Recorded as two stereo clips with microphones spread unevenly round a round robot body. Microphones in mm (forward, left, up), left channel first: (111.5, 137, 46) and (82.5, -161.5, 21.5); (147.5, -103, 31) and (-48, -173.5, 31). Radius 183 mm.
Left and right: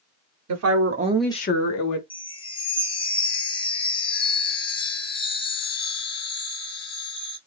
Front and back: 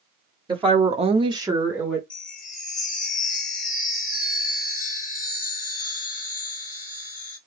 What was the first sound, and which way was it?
A woman speaking, 95° right.